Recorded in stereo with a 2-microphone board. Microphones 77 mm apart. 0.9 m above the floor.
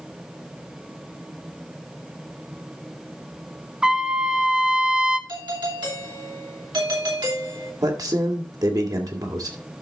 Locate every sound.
3.8 s a trumpet: 10° right (ahead or behind), 0.7 m
5.3 s a doorbell: 65° right (ahead or behind), 3.5 m
7.8 s a man speaking: 55° right (ahead or behind), 2 m